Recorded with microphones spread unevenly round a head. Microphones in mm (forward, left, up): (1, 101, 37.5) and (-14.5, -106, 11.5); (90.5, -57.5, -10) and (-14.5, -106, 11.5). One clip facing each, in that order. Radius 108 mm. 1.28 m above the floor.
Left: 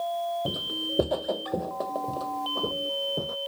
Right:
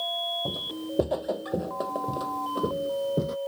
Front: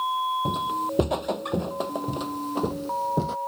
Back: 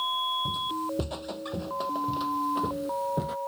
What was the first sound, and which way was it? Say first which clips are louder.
Footsteps: even, front 5 dB; 15° left.